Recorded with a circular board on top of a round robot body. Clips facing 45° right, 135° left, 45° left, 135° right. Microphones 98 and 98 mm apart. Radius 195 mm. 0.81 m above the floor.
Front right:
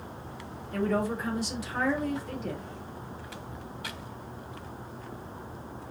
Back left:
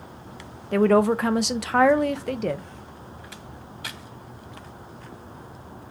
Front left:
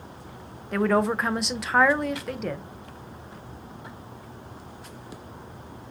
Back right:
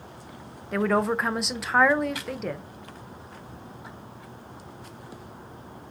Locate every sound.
0.7 s a woman speaking: 135° left, 0.6 m